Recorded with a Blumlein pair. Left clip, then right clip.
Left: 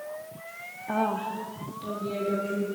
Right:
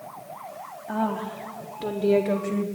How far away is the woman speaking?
About 0.8 m.